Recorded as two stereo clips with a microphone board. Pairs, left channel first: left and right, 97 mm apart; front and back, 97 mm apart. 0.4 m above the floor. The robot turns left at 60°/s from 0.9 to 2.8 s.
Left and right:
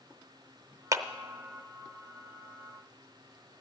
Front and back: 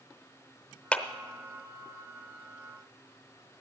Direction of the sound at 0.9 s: 65° right.